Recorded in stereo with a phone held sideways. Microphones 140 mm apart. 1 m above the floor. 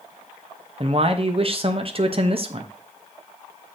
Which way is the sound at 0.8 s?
45° right (ahead or behind).